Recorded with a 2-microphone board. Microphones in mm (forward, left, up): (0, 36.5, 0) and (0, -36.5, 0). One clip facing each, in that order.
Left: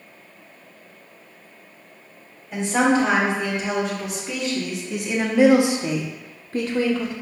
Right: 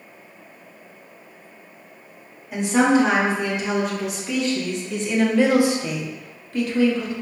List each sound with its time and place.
2.5 s a woman speaking: 10° right (ahead or behind), 2.0 m; by 7.1 s 35° left (ahead or behind), 0.8 m